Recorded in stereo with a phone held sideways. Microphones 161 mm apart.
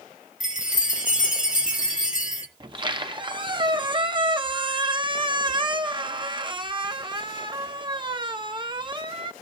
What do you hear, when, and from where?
0.4 s a chime: 55° left (ahead or behind), 1.9 m
2.6 s a squeak: 30° right (ahead or behind), 0.7 m